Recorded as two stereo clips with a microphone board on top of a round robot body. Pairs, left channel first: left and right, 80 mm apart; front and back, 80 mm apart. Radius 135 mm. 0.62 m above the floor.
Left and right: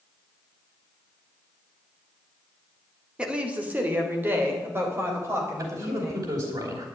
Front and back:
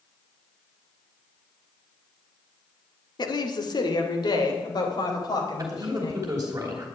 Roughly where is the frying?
No frying in this recording.